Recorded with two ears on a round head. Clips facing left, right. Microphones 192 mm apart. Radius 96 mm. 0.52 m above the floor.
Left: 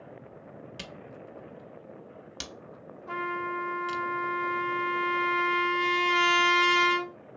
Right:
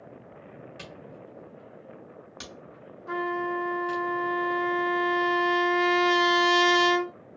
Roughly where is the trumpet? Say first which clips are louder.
Right 6 dB; right.